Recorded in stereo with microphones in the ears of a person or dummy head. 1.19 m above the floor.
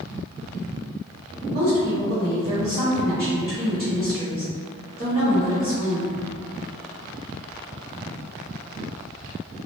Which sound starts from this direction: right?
A woman speaking, at 1.5 s.